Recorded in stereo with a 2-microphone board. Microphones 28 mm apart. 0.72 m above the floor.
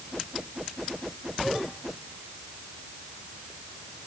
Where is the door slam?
I don't hear a door slam.